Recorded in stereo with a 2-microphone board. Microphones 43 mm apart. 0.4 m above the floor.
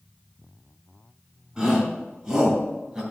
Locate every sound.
1.6 s a shout: 20° right (ahead or behind), 4 m; by 3.0 s 15° right (ahead or behind), 3 m